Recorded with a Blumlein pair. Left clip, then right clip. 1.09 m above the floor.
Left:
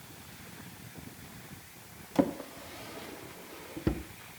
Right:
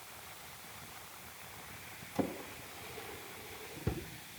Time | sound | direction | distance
2.1 | a drawer | 60° left | 0.9 m